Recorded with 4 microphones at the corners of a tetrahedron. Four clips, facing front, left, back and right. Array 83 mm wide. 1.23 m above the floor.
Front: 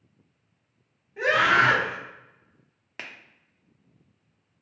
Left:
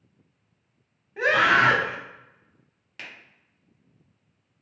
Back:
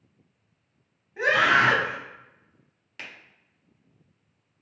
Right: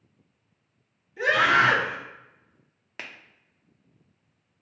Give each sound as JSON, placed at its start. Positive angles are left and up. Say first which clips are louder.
{"t": 1.2, "sound": "a scream", "louder": "left 1 dB, even", "azimuth_deg": 100, "distance_m": 1.5}
{"t": 3.0, "sound": "a finger snap", "louder": "right 1 dB, front 1 dB", "azimuth_deg": -45, "distance_m": 0.6}